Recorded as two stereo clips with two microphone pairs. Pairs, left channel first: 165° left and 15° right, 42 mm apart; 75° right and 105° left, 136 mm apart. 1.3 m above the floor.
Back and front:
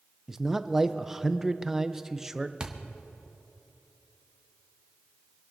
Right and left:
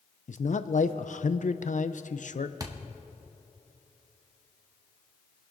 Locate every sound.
0.3 s a man speaking: 90° right, 0.5 m
2.6 s a thud: 50° left, 0.9 m